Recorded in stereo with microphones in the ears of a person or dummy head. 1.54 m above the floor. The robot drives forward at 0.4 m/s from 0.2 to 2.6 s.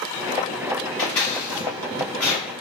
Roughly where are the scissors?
Centre.